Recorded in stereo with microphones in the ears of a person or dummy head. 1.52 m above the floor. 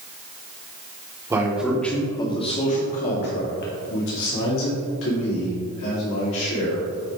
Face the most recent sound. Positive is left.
turn(degrees=80)